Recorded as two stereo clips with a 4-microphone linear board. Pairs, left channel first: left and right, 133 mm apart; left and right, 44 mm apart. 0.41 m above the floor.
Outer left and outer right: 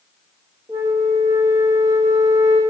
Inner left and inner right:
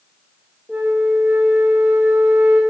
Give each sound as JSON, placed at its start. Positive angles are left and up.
{"t": 0.7, "sound": "a flute", "side_deg": -25, "distance_m": 1.9}